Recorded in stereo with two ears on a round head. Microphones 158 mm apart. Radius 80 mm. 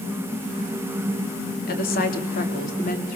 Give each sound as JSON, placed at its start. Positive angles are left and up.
{"t": 1.7, "sound": "a woman speaking", "side_deg": 50, "distance_m": 3.5}